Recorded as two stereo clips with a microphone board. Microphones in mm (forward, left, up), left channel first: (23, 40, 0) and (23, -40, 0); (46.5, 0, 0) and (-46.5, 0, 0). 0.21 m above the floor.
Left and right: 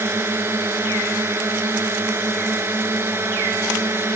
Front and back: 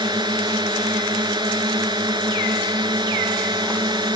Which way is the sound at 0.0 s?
150° right.